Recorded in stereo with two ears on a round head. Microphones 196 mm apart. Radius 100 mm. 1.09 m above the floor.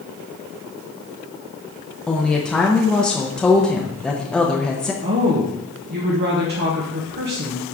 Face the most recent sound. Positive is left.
turn(degrees=-50)  # may be behind; listen again after turning